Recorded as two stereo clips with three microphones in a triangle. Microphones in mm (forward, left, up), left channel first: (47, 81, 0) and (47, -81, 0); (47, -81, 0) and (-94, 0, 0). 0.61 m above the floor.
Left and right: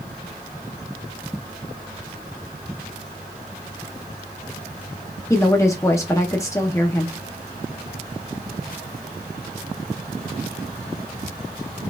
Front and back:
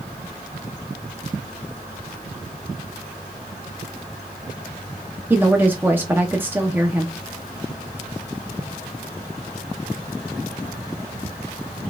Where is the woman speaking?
100° left, 0.5 m.